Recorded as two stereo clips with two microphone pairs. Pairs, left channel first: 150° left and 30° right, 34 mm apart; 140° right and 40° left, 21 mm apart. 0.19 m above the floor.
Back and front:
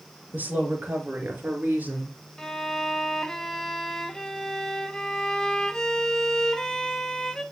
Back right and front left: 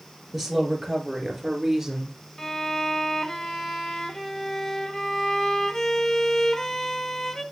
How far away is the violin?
About 0.8 m.